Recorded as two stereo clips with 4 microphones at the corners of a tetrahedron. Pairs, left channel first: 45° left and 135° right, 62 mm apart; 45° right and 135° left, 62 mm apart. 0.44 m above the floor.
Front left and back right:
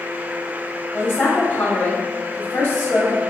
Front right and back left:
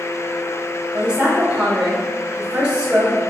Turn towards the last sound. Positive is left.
turn(degrees=75)